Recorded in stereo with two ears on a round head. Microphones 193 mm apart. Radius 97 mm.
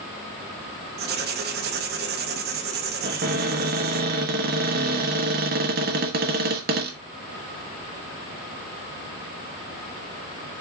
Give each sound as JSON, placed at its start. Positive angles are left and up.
{"t": 1.0, "sound": "writing", "side_deg": -50, "distance_m": 0.9}
{"t": 3.0, "sound": "a cupboard door", "side_deg": -45, "distance_m": 1.2}